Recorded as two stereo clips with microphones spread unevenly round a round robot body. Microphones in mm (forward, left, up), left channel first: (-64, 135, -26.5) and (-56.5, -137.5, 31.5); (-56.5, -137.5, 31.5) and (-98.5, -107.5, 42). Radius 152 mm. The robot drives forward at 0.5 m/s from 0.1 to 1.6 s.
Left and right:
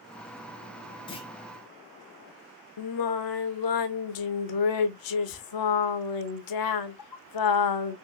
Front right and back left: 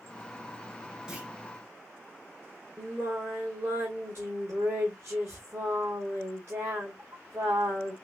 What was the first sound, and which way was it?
A clunk, 65° left.